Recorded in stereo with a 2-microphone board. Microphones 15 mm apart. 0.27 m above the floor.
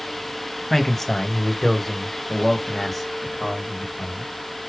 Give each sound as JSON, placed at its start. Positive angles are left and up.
{"t": 0.7, "sound": "a man speaking", "side_deg": 15, "distance_m": 1.2}